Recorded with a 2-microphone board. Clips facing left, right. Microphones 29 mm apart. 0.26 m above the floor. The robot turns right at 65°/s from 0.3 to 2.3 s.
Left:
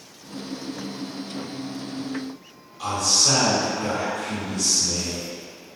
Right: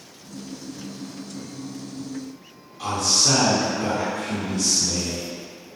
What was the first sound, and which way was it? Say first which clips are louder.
A man speaking: even; 10° right (ahead or behind).